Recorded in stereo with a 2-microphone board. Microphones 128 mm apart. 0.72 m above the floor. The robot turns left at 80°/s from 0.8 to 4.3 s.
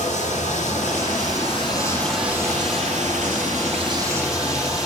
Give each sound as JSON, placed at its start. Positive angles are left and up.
{"t": 0.0, "sound": "running water", "azimuth_deg": 105, "distance_m": 3.5}